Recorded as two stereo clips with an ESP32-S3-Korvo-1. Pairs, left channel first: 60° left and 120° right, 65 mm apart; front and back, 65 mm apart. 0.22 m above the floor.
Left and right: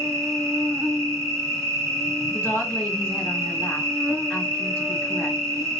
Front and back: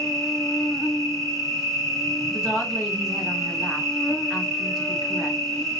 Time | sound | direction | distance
0.0 | an insect | 80° right | 0.9 m
2.3 | a woman speaking | 110° left | 1.4 m